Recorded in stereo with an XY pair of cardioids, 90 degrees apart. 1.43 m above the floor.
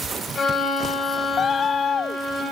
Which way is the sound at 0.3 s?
50° left.